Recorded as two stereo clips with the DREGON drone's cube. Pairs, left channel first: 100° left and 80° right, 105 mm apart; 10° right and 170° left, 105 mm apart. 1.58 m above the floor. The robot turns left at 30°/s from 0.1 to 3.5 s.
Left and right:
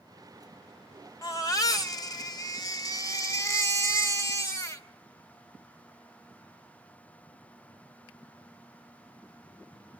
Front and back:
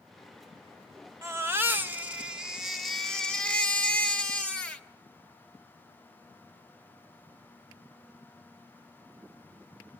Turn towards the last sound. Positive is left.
turn(degrees=60)